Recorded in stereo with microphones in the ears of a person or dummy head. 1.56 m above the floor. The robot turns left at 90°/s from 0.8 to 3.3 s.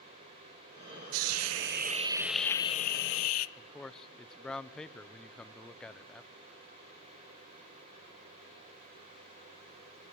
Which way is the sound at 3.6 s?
10° left (ahead or behind).